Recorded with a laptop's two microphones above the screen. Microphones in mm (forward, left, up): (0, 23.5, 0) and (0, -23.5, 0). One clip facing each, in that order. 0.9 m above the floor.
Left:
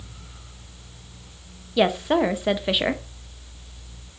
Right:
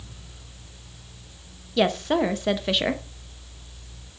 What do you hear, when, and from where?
0.0 s a fan: 70° left (ahead or behind), 5.5 m
1.8 s a woman speaking: 10° left (ahead or behind), 0.7 m